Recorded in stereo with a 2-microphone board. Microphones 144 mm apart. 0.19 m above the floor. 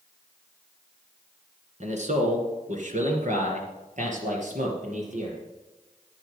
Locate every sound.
1.8 s a man speaking: 55° right (ahead or behind), 2.0 m; by 5.4 s 60° right (ahead or behind), 4.5 m